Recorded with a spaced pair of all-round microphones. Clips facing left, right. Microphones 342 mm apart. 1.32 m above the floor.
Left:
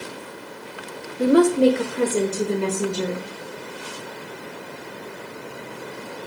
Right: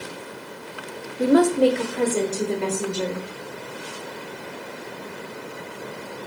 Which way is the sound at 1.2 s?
Centre (ahead or behind).